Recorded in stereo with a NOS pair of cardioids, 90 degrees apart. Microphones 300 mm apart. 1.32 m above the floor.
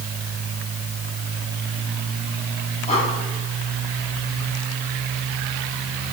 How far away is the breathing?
About 4 m.